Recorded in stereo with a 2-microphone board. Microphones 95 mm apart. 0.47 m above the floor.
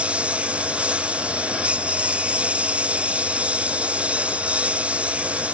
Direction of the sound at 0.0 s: 10° right (ahead or behind).